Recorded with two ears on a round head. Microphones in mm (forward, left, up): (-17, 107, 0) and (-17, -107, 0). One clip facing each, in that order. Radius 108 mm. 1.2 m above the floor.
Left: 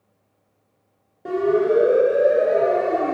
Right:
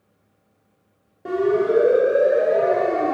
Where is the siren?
Centre (ahead or behind), 6.5 m; by 3.1 s 10° left (ahead or behind), 6 m.